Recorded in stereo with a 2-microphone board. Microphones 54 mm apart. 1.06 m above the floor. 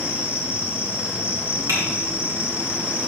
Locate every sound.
0.0 s an insect: 25° right (ahead or behind), 0.9 m
1.7 s typing on a keyboard: 75° right (ahead or behind), 3 m